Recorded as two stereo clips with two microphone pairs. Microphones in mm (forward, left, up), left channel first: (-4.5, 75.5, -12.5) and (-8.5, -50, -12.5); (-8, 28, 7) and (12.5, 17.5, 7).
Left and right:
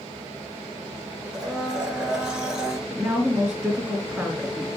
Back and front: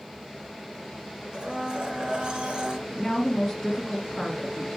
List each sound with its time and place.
1.3 s a blender: 15° right, 2 m
2.9 s a woman speaking: 155° right, 1.7 m